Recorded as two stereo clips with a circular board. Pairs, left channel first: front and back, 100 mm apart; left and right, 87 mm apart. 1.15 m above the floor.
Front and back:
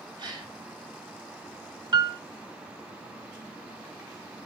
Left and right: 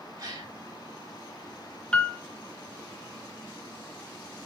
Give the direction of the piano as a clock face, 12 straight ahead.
7 o'clock.